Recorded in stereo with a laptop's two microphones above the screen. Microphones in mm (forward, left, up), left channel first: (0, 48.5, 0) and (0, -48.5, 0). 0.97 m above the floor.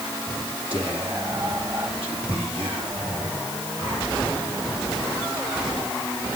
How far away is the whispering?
About 2.5 m.